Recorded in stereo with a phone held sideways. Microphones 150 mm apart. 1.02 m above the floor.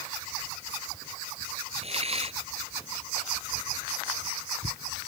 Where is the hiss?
45° right (ahead or behind).